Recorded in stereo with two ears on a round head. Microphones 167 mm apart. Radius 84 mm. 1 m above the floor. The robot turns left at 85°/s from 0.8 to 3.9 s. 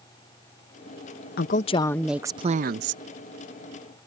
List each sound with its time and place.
1.4 s a woman speaking: 60° left; by 3.0 s 80° right